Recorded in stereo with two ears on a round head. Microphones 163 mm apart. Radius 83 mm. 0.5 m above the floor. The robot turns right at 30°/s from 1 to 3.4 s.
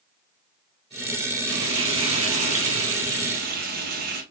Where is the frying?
110° right, 2.5 m; by 4.2 s 50° right, 2.5 m.